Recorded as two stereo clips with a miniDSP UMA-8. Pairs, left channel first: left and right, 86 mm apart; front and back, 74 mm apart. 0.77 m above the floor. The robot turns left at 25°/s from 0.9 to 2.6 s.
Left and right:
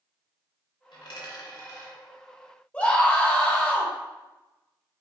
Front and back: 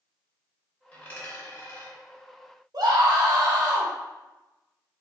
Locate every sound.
0.9 s a dropped coin: 70° left, 2.5 m; by 2.0 s 40° left, 2.5 m
2.7 s a scream: 160° left, 1.3 m